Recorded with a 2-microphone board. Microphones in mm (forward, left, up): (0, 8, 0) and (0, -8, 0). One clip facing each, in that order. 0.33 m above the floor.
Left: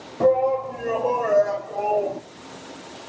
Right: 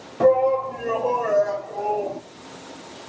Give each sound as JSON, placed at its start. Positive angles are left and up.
{"t": 0.2, "sound": "a shout", "side_deg": -20, "distance_m": 1.4}